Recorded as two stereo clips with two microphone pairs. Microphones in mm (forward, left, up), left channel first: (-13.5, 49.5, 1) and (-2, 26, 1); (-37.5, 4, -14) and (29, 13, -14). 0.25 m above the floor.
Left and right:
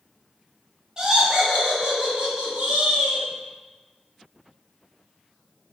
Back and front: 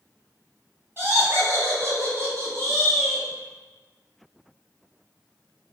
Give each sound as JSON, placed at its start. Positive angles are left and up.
{"t": 1.0, "sound": "laughter", "azimuth_deg": -20, "distance_m": 1.6}